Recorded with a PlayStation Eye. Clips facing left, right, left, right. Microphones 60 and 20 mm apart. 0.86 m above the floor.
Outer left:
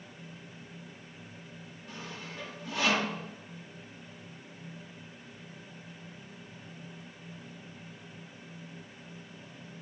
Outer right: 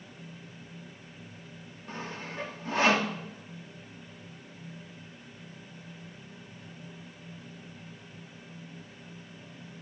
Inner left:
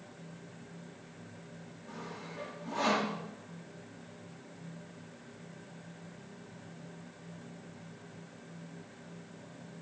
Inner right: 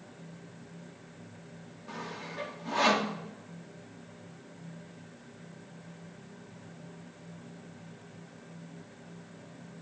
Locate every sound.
1.9 s sawing: 40° right (ahead or behind), 1.2 m